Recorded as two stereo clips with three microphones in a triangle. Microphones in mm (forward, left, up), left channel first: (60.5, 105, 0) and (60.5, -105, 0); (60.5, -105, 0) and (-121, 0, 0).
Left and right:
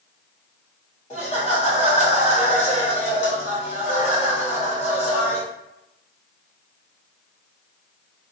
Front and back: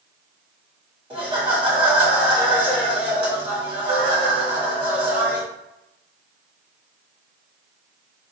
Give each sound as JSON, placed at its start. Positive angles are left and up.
{"t": 1.1, "sound": "laughter", "azimuth_deg": 110, "distance_m": 1.5}